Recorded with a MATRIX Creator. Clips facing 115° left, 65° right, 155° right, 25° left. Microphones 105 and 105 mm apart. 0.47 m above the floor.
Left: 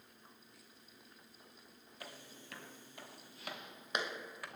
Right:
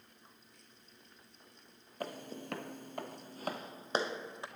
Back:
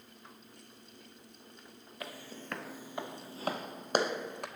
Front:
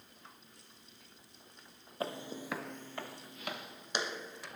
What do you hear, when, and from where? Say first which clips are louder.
2.0 s footsteps: right 12 dB, front 6 dB; 35° right, 0.9 m; by 4.5 s 130° right, 1.5 m